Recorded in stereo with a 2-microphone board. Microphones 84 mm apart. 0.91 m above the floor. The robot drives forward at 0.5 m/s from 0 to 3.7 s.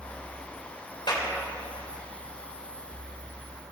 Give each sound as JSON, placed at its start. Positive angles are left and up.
{"t": 1.1, "sound": "a clap", "side_deg": 60, "distance_m": 3.0}